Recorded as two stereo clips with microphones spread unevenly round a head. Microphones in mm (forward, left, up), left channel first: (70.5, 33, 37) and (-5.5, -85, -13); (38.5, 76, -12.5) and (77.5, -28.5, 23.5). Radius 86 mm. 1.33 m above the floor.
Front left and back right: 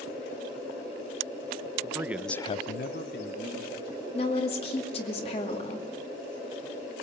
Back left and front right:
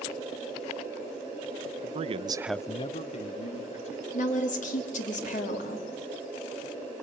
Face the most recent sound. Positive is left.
turn(degrees=115)